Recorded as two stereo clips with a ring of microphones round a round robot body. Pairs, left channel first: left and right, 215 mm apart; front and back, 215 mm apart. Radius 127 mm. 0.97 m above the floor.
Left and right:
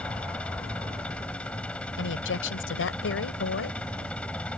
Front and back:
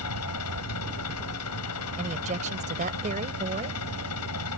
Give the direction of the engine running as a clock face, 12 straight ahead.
12 o'clock.